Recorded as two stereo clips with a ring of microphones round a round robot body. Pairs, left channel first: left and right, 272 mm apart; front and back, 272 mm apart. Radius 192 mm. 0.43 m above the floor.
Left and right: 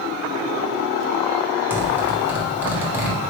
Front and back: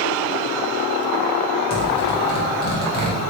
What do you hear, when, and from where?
1.7 s a zipper: 15° right, 1.4 m